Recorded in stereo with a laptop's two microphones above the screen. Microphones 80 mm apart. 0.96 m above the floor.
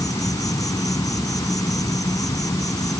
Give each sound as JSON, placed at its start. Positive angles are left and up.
{"t": 0.0, "sound": "an insect", "side_deg": 50}